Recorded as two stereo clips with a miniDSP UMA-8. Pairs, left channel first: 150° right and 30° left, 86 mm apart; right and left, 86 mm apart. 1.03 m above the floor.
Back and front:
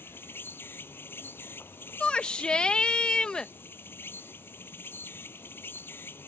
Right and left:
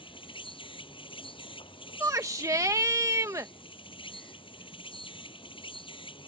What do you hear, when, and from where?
0.0 s an insect: 85° right
2.0 s a shout: 135° left